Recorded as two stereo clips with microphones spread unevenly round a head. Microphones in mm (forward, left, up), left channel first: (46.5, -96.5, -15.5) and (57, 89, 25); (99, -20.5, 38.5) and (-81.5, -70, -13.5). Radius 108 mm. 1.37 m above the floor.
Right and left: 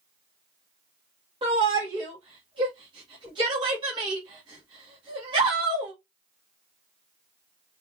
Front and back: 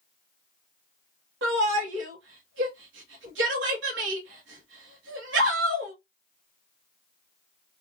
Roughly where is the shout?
Behind left.